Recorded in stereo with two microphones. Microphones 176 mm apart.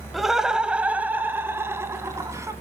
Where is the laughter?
Centre (ahead or behind), 1.1 m; by 2.5 s 20° right (ahead or behind), 1.9 m.